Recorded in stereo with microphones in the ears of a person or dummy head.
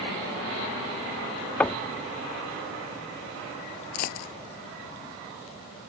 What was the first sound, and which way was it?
Knocking, 10° left (ahead or behind).